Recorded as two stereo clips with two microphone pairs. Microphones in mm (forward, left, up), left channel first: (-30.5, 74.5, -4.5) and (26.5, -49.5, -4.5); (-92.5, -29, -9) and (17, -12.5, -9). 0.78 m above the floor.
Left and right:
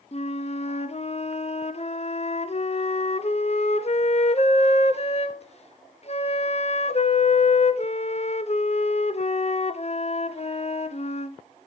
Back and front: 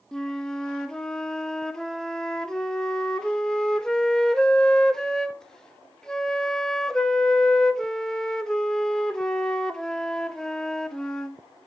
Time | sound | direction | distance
0.1 | a flute | 110° left | 0.6 m